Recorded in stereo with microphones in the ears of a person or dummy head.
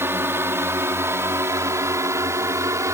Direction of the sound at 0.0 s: 10° right (ahead or behind).